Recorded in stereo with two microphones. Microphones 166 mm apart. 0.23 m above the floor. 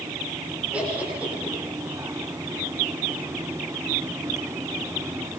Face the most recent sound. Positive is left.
turn(degrees=-10)  # may be behind; listen again after turning